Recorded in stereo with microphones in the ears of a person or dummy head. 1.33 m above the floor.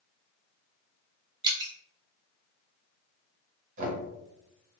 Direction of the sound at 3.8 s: 45° right (ahead or behind).